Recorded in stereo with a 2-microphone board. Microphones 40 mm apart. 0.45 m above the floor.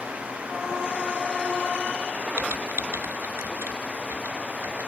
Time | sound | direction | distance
2.4 | typing on a keyboard | 85° right | ?